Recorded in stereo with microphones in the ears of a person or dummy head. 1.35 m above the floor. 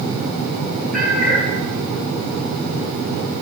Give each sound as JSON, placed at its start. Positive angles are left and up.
{"t": 0.9, "sound": "a cat meowing", "side_deg": -5, "distance_m": 4.5}